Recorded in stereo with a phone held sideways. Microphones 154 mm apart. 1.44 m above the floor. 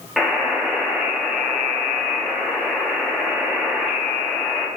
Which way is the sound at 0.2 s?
Centre (ahead or behind).